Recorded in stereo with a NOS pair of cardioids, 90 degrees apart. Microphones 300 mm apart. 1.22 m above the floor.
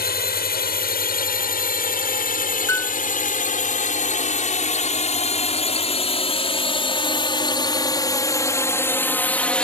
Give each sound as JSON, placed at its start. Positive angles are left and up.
{"t": 0.0, "sound": "a drone", "azimuth_deg": 35}
{"t": 2.7, "sound": "a piano", "azimuth_deg": 10}